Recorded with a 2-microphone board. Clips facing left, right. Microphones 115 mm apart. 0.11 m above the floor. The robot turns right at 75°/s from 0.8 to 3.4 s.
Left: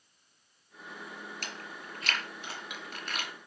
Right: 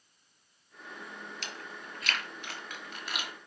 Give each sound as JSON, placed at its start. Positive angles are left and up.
{"t": 1.4, "sound": "chewing", "side_deg": 40, "distance_m": 2.0}